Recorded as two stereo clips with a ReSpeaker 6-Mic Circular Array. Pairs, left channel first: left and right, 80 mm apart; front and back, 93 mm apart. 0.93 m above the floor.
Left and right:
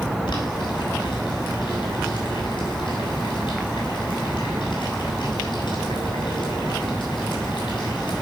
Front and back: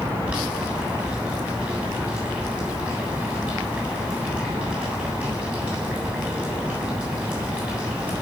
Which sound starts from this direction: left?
Boiling, at 0.3 s.